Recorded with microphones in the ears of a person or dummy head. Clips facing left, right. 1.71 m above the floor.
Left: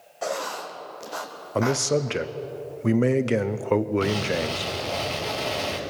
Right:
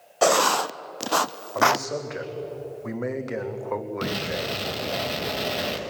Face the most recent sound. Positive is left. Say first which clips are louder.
# left 4 dB
turn(degrees=-20)  # may be behind; listen again after turning